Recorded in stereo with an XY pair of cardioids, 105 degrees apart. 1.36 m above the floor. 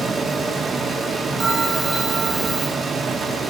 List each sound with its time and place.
0.0 s a fan: 50° right, 1.6 m
1.4 s a bell: 45° right, 4 m